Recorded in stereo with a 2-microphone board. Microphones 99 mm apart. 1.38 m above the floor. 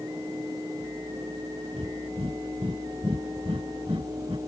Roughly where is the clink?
No clink in this recording.